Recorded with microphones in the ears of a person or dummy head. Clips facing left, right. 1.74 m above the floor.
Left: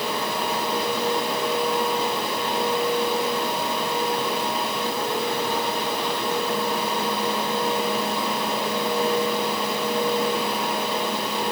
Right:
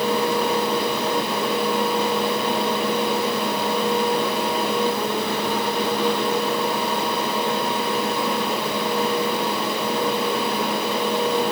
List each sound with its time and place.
Only background noise.